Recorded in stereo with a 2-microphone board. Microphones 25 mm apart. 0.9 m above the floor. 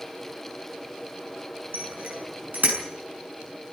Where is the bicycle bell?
85° right, 7 m; by 2.8 s 80° right, 6.5 m.